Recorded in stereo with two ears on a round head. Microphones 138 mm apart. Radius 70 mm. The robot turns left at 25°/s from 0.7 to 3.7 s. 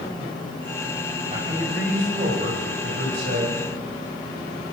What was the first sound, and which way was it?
A man speaking, 40° right.